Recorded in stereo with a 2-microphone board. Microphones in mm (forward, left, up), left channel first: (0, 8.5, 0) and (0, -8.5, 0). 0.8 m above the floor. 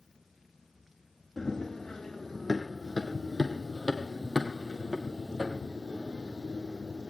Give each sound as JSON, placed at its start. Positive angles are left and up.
{"t": 1.4, "sound": "running footsteps", "side_deg": 25, "distance_m": 3.0}